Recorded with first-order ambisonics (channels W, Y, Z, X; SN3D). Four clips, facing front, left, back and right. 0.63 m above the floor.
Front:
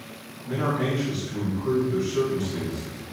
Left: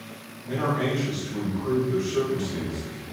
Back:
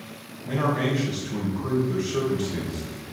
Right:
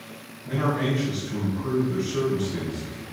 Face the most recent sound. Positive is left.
turn(degrees=180)